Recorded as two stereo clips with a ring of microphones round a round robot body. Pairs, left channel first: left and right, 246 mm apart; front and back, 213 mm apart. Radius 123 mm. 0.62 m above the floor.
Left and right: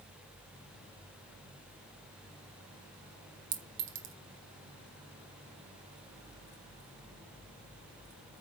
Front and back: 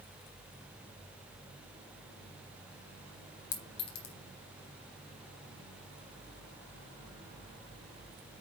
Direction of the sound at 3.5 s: 50° right.